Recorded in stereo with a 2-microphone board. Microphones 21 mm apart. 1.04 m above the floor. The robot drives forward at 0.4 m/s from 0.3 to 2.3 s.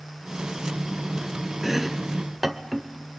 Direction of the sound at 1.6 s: 10° right (ahead or behind).